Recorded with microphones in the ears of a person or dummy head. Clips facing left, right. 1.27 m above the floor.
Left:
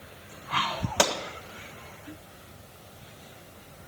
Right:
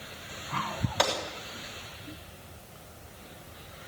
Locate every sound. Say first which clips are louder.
1.0 s a gunshot: left 3 dB; 55° left (ahead or behind), 2.0 m